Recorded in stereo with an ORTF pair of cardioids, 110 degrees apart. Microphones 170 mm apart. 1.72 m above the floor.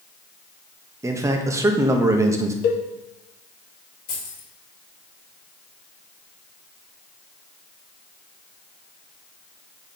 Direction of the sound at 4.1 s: 55° left.